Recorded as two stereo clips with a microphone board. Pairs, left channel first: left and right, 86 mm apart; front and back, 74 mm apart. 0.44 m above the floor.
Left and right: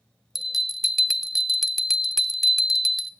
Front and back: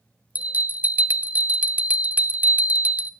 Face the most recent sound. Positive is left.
turn(degrees=-170)